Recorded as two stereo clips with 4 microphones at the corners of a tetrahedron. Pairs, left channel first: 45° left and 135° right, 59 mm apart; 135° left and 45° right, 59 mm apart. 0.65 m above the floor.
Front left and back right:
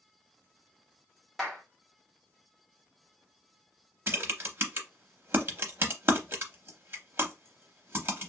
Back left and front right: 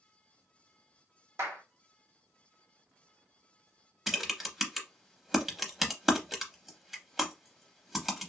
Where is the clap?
45° right, 1.1 m.